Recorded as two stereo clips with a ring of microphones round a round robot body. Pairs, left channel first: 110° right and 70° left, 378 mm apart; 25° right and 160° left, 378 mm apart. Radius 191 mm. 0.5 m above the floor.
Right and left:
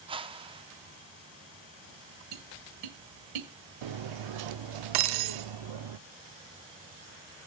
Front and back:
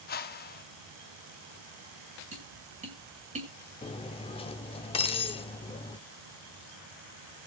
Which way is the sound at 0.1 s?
5° left.